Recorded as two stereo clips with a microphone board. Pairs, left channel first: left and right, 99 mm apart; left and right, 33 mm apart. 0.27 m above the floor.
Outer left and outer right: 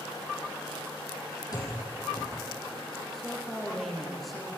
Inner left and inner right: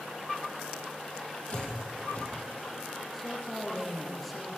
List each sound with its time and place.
1.5 s a door slam: 40° left (ahead or behind), 6.5 m
3.1 s a woman speaking: centre (ahead or behind), 6 m